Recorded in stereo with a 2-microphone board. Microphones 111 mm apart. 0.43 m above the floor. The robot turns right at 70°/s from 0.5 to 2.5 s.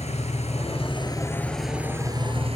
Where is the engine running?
100° left, 3.5 m; by 2.6 s 120° right, 3.5 m.